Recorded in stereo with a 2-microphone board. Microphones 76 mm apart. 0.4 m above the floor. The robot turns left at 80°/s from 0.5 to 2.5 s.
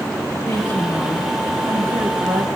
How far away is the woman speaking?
About 3 m.